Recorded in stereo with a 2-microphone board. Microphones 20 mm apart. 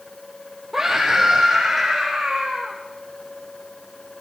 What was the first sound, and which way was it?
A scream, 10° right (ahead or behind).